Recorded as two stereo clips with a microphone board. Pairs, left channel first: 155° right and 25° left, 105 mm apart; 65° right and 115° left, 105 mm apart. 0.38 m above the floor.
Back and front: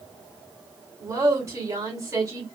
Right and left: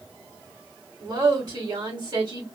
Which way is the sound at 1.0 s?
70° left.